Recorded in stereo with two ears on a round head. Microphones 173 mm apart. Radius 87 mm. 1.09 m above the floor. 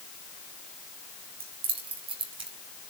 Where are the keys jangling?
30° right (ahead or behind), 5 m; by 2.5 s 25° right (ahead or behind), 4 m.